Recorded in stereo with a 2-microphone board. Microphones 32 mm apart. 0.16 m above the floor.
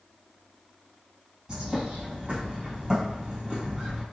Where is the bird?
25° right (ahead or behind), 1.6 m.